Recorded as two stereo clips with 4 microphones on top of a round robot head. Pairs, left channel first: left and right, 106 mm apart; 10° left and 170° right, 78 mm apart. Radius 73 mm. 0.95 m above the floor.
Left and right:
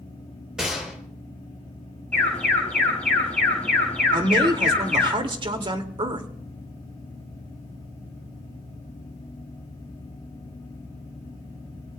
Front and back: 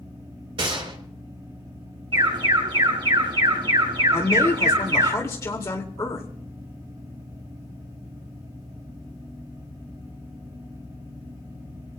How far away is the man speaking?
About 2 m.